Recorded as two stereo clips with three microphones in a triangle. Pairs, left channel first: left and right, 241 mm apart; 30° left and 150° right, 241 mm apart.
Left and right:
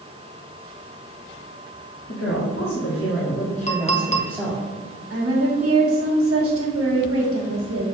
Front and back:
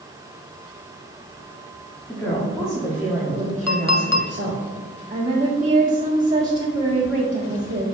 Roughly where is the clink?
Ahead left.